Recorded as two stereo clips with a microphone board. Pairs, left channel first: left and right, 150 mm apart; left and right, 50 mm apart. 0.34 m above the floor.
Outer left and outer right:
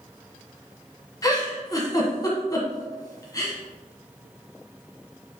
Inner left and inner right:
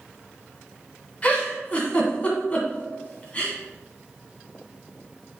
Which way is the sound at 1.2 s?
25° left (ahead or behind).